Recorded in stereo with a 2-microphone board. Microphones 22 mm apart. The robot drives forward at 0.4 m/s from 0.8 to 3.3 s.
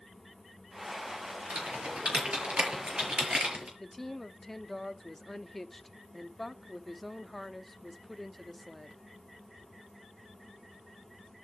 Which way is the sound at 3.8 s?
15° left (ahead or behind).